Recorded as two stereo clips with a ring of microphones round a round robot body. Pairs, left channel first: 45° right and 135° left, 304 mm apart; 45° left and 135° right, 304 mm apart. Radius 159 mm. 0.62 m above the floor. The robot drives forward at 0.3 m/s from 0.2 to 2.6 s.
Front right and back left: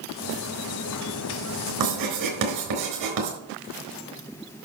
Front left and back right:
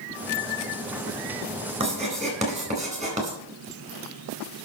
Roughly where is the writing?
Behind left.